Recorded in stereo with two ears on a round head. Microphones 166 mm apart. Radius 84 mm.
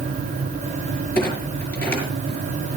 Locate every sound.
1.1 s a clunk: 10° left (ahead or behind), 6 m